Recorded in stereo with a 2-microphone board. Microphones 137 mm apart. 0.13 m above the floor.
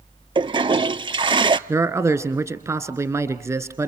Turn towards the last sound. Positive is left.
turn(degrees=-20)  # may be behind; listen again after turning